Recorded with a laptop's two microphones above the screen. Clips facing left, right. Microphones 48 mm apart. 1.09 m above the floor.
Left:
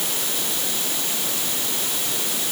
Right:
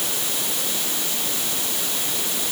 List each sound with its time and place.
Only background noise.